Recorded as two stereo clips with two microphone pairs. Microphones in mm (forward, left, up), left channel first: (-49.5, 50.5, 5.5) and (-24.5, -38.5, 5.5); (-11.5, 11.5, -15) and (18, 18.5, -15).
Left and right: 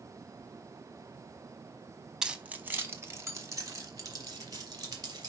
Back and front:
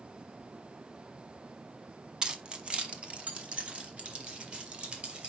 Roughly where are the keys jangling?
Ahead.